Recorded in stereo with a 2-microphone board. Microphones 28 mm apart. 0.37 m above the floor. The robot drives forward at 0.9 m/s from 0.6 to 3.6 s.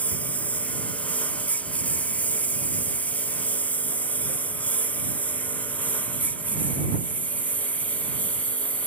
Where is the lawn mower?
75° left (ahead or behind); by 8.9 s 65° left (ahead or behind).